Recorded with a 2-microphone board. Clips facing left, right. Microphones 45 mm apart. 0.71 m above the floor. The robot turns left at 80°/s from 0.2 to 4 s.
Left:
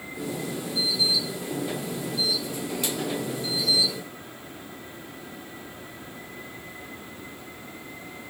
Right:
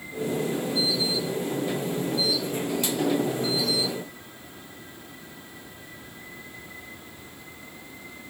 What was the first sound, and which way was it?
Only background noise.